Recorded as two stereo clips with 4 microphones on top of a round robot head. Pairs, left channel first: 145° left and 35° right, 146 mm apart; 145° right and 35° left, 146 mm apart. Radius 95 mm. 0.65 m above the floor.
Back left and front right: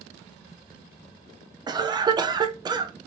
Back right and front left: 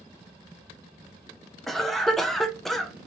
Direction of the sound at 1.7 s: 55° right.